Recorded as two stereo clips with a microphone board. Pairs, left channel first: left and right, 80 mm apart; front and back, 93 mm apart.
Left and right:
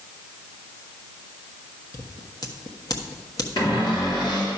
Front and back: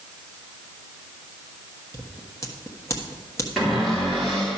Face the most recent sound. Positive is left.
turn(degrees=90)